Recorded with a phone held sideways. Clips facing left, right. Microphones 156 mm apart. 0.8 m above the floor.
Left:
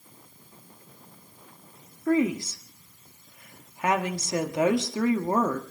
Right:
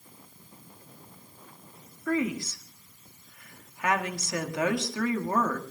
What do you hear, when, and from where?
2.1 s a woman speaking: 25° left (ahead or behind), 1.8 m